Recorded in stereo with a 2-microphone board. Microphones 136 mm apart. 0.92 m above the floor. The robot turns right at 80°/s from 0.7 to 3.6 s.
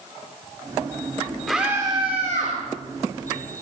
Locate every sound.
1.5 s a scream: straight behind, 3 m; by 2.6 s 95° right, 3 m